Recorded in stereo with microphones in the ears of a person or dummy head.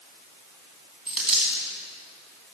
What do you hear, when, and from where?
1.1 s a dropped coin: 5° right (ahead or behind), 2 m